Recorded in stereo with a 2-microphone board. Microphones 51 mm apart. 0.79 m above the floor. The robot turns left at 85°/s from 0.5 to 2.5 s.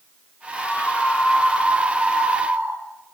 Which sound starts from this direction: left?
A scream, at 0.6 s.